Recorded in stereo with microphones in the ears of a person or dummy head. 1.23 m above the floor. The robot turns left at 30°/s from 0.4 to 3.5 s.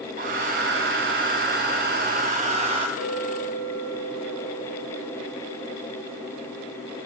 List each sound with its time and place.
0.2 s a hair dryer: 65° right, 1.5 m; by 2.9 s 140° right, 1.5 m
3.0 s a clink: 85° left, 4 m; by 6.8 s 75° left (ahead or behind), 4 m